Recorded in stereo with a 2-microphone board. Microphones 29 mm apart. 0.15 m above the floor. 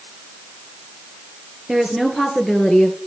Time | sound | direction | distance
1.7 | a woman speaking | 15° right (ahead or behind) | 2 m